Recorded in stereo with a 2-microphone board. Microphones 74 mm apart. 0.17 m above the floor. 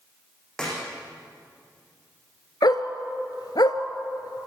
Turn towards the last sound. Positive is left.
turn(degrees=65)  # may be behind; listen again after turning